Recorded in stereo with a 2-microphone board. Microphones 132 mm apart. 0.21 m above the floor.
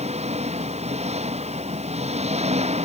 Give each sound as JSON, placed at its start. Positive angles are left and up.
{"t": 0.0, "sound": "an engine running", "side_deg": -50}